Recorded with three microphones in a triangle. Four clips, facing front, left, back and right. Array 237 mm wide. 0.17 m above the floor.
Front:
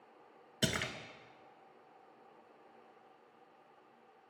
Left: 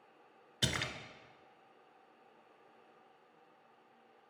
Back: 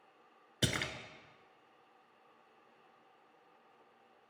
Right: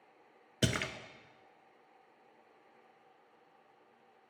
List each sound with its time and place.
0.6 s a splash: 95° right, 0.6 m